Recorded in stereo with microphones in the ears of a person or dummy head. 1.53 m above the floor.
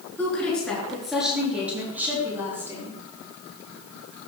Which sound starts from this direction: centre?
A woman speaking, at 0.2 s.